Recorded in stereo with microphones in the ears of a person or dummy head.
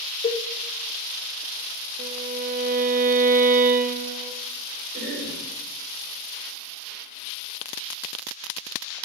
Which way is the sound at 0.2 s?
35° left (ahead or behind).